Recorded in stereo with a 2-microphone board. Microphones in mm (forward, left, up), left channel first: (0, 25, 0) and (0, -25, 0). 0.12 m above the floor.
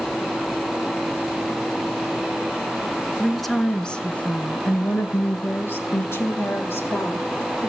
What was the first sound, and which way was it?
A woman speaking, 5° right (ahead or behind).